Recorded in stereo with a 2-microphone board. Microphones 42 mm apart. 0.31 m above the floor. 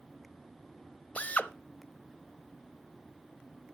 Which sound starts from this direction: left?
A drill, at 1.1 s.